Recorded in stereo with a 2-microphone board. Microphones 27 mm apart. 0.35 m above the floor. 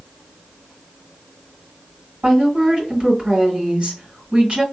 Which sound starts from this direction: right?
A woman speaking, at 2.2 s.